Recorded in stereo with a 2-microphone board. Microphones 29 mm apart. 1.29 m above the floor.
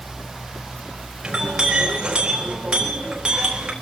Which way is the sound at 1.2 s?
30° right (ahead or behind).